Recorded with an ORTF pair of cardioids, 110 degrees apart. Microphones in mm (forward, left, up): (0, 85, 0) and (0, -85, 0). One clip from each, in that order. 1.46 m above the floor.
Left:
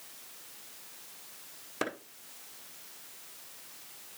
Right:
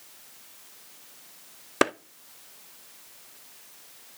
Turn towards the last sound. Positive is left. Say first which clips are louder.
# right 11 dB
turn(degrees=-55)